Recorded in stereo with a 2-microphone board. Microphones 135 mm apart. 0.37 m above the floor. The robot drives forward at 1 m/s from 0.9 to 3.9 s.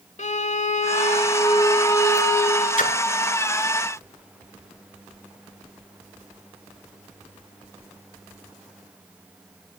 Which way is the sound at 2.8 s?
70° left (ahead or behind).